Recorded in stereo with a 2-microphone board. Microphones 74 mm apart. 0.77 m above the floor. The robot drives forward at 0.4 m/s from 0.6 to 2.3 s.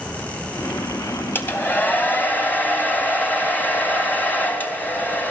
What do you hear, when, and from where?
1.4 s a hair dryer: 30° left (ahead or behind), 3 m; by 5.3 s 25° left (ahead or behind), 3 m